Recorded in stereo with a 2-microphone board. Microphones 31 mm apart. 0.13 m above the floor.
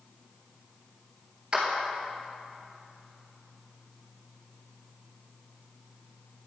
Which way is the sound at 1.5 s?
25° right (ahead or behind).